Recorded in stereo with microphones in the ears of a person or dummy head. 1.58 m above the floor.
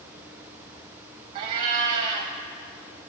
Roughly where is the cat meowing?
Right.